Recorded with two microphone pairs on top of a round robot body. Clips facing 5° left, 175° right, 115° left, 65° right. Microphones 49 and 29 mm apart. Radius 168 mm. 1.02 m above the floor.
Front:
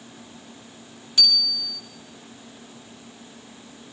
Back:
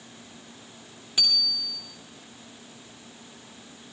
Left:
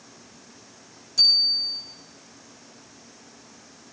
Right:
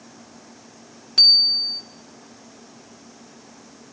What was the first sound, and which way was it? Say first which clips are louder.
A bicycle bell: front 4 dB, right 4 dB; 100° right.